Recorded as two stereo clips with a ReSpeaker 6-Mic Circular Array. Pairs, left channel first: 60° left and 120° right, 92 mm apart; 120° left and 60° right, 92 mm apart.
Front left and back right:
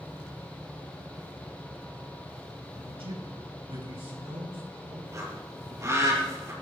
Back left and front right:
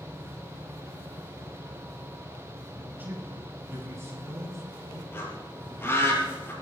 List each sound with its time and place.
2.8 s a man speaking: 130° right, 7 m; by 5.0 s 110° right, 7 m
5.1 s a bird: 175° right, 7 m